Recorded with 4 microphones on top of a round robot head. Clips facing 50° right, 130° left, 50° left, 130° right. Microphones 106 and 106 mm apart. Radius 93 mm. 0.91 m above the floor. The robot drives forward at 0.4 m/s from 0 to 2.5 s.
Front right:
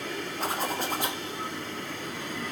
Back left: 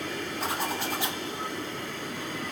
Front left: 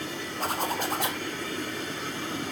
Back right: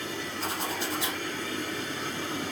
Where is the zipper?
Straight ahead, 2.5 m.